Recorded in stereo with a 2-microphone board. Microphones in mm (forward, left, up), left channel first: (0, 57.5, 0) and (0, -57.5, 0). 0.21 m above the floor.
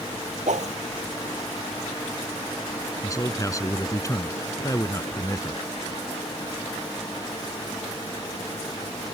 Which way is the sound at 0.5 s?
80° right.